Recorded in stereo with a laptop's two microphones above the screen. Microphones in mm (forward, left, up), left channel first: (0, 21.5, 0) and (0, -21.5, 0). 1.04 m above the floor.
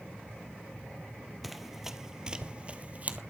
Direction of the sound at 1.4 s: Centre (ahead or behind).